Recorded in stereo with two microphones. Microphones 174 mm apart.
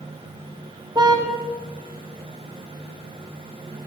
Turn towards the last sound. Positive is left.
turn(degrees=-25)  # may be behind; listen again after turning